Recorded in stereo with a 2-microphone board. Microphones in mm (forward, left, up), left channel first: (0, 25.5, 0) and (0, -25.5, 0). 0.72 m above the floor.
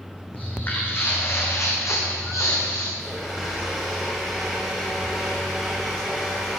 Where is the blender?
5° right (ahead or behind), 4 m.